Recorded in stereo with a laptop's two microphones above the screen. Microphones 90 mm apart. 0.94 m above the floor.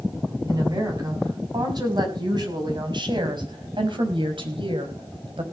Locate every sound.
0.5 s a woman speaking: 45° right (ahead or behind), 6.5 m; by 5.5 s 75° right (ahead or behind), 4.5 m